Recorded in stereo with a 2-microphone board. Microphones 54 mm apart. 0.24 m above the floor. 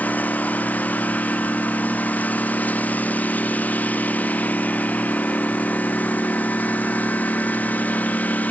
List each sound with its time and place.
0.0 s a lawn mower: 30° left (ahead or behind)